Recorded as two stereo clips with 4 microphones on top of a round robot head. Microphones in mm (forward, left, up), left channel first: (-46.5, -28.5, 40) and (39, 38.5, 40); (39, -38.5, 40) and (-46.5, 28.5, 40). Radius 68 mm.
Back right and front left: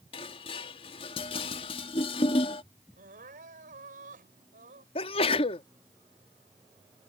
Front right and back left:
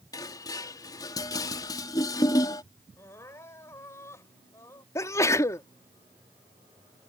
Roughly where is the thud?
I don't hear a thud.